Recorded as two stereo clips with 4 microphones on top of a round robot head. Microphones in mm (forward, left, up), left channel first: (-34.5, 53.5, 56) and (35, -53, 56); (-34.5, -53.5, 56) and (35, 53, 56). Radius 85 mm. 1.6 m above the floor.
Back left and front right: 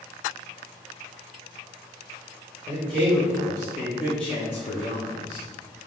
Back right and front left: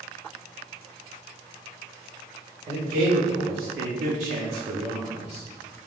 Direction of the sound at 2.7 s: 5° right.